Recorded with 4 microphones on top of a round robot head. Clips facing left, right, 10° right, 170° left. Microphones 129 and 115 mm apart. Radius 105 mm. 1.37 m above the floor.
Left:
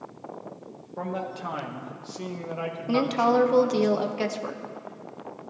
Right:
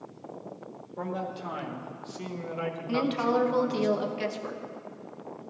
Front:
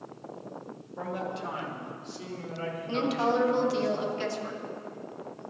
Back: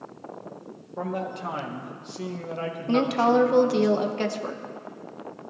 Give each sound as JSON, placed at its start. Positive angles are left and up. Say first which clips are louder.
{"t": 1.0, "sound": "a man speaking", "louder": "left 2 dB, back 4 dB", "azimuth_deg": 125, "distance_m": 1.9}
{"t": 2.9, "sound": "a woman speaking", "louder": "left 5 dB, back 6 dB", "azimuth_deg": 135, "distance_m": 1.0}